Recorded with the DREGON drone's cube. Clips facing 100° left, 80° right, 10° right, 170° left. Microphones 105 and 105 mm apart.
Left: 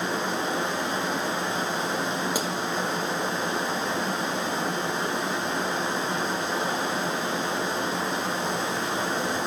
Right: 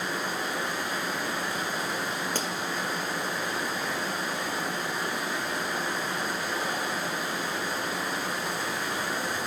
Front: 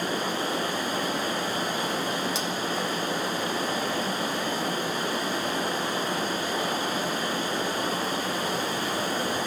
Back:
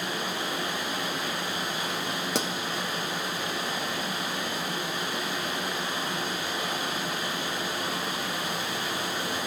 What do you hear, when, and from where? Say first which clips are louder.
0.0 s running water: left 4 dB, front 4 dB; 35° left, 1.1 m
2.4 s a pop: left 4 dB, back 1 dB; straight behind, 1.0 m